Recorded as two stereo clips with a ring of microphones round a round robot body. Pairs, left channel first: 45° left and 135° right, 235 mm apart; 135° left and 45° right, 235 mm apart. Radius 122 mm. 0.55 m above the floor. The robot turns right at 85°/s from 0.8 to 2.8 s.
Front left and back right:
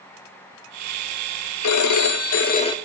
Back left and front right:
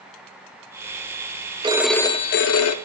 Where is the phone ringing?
25° left, 0.9 m; by 2.7 s 120° left, 0.9 m.